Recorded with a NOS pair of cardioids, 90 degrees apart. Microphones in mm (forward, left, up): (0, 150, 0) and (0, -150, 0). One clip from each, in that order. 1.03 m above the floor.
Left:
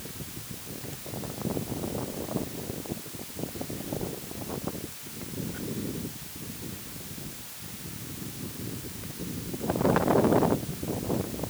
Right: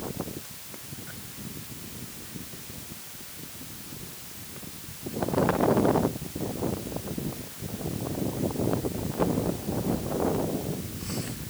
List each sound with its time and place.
Only background noise.